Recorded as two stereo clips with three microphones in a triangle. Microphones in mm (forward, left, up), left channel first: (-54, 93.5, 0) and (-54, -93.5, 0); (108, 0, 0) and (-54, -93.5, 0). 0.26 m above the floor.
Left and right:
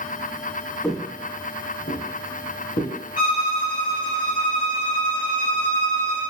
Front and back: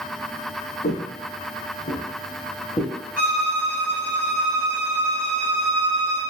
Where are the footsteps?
Straight ahead, 0.6 m; by 2.9 s 90° left, 1.2 m.